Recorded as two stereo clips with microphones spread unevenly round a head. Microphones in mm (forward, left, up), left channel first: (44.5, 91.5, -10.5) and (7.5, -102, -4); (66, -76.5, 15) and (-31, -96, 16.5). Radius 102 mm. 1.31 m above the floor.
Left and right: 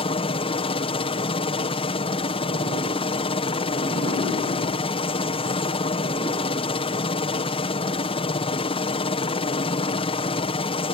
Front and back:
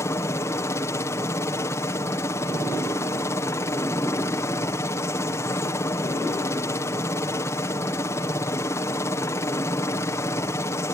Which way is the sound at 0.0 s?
45° left.